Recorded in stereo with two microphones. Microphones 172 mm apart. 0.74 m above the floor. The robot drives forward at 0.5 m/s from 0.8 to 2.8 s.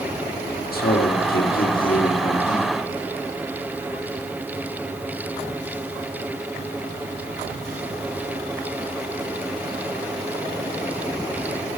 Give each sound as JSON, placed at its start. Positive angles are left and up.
{"t": 0.7, "sound": "a man speaking", "side_deg": 55, "distance_m": 1.6}